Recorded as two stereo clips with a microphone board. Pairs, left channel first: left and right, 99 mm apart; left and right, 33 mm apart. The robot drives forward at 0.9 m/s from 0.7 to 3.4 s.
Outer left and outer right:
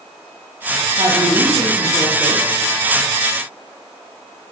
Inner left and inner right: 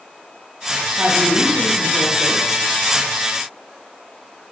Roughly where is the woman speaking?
Right.